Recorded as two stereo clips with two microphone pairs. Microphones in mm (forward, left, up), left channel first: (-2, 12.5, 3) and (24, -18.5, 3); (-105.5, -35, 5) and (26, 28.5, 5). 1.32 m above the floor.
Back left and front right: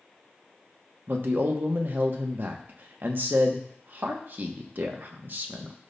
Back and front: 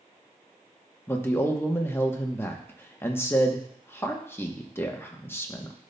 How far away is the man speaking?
About 1.0 m.